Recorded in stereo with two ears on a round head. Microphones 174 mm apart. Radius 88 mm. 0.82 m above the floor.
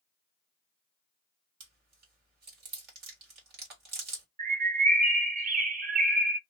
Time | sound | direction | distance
1.6 | chewing | 60° right (ahead or behind) | 1.6 m
4.4 | a bird | 40° right (ahead or behind) | 0.5 m